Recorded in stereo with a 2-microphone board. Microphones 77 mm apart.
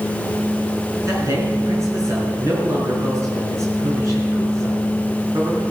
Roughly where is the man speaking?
Right.